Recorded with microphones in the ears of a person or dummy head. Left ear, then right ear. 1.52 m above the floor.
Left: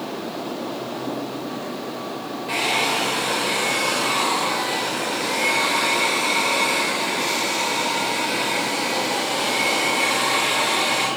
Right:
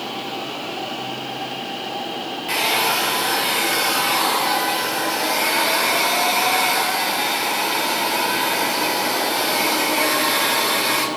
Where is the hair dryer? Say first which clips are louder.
Right 2 dB; 15° right (ahead or behind), 2.5 m.